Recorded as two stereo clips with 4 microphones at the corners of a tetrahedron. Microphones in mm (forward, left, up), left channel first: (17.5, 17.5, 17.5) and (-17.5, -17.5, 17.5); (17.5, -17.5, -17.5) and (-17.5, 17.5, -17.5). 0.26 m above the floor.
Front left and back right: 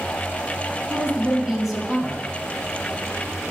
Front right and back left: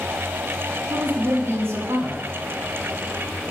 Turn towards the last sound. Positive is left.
turn(degrees=140)